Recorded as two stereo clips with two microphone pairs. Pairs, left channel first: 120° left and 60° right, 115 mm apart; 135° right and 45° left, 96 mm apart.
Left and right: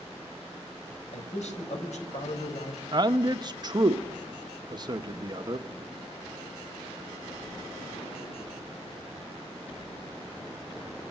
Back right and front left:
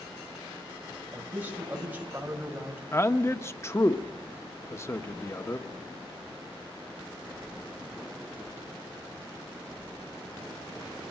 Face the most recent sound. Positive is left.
turn(degrees=-85)